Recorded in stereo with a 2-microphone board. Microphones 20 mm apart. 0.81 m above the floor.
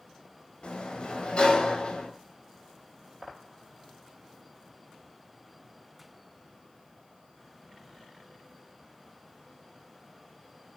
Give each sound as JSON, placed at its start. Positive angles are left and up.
{"t": 0.6, "sound": "a sliding door", "side_deg": 50, "distance_m": 4.0}